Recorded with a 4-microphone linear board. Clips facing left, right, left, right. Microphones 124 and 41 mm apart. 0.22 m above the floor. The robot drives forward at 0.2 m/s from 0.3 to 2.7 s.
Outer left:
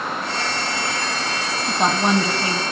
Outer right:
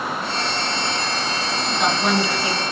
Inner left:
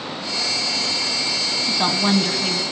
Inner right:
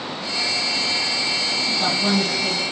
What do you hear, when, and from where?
1.6 s a woman speaking: 35° left (ahead or behind), 1.4 m